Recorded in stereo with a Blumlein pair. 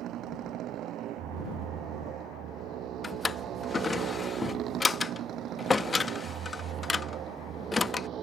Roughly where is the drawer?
Ahead.